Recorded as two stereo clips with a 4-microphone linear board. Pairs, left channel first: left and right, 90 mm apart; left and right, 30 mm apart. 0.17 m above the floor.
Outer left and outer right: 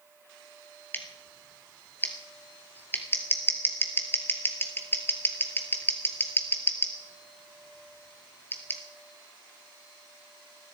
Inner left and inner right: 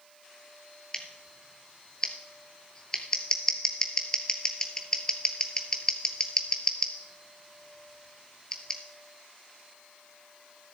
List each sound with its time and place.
0.9 s scissors: 25° left (ahead or behind), 2.5 m